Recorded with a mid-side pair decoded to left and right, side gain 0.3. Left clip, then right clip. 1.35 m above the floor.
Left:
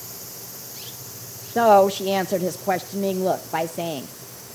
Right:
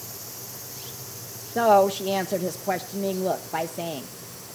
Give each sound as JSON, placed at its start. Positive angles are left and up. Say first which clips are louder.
{"t": 1.6, "sound": "a woman speaking", "louder": "left 3 dB", "azimuth_deg": 40, "distance_m": 0.6}